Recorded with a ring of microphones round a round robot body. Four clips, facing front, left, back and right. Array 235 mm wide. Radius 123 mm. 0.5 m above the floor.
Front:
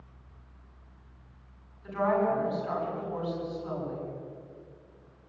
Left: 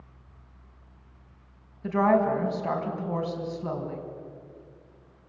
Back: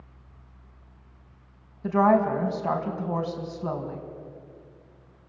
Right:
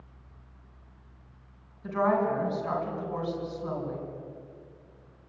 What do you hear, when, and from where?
1.8 s a woman speaking: 160° left, 4.5 m